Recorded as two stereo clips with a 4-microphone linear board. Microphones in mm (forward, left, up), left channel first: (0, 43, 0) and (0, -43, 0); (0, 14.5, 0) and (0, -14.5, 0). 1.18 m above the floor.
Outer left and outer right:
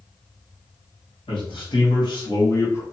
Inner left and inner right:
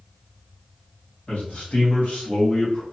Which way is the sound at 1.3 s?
70° left (ahead or behind).